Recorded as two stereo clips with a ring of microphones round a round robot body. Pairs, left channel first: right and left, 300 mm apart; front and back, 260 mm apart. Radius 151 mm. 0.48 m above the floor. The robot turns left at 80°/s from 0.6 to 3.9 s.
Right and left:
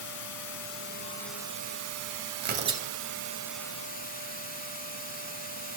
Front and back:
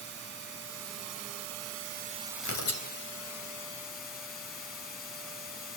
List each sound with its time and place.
0.0 s running water: 125° right, 3 m; by 5.8 s 25° right, 3 m
2.4 s tearing paper: 40° left, 3.5 m; by 2.9 s 5° left, 3.5 m